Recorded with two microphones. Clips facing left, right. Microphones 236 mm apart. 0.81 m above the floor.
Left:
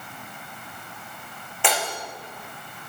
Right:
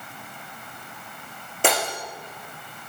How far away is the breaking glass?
About 9.5 m.